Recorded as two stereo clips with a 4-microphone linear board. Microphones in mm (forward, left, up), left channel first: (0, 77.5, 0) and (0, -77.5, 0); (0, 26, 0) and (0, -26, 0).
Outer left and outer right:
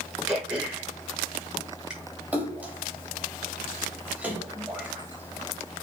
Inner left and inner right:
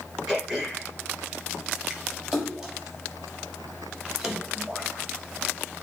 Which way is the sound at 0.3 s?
5° right (ahead or behind).